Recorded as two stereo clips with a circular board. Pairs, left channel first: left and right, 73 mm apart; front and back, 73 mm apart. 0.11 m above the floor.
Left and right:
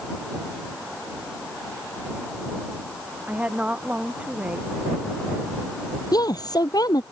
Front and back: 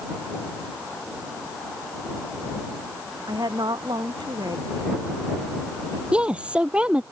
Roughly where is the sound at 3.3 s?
Behind.